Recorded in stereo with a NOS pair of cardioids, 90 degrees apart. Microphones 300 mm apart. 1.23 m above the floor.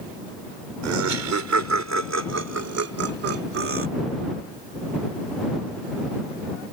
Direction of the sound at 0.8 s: 65° right.